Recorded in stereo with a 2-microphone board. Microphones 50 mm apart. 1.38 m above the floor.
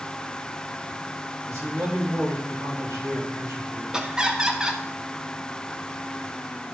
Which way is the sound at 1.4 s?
80° right.